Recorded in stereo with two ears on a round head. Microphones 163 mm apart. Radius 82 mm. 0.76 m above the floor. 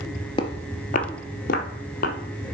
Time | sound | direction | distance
0.4 | footsteps | 25° left (ahead or behind) | 0.8 m